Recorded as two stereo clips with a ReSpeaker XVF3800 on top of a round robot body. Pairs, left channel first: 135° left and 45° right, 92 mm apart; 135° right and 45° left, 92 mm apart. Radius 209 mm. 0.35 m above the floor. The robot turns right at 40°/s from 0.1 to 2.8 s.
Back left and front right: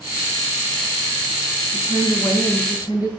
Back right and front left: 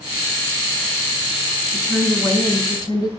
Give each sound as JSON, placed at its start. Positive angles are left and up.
{"t": 1.7, "sound": "a woman speaking", "azimuth_deg": 135, "distance_m": 5.5}